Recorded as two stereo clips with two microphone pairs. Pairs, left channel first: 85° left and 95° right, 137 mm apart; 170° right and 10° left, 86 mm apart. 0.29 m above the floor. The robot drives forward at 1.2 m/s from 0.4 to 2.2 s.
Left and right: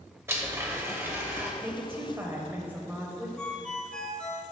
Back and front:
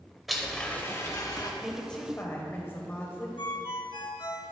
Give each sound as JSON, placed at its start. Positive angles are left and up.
{"t": 0.3, "sound": "a blender", "azimuth_deg": -80, "distance_m": 1.1}
{"t": 1.6, "sound": "a woman speaking", "azimuth_deg": -60, "distance_m": 1.1}
{"t": 3.4, "sound": "a ringtone", "azimuth_deg": 170, "distance_m": 1.2}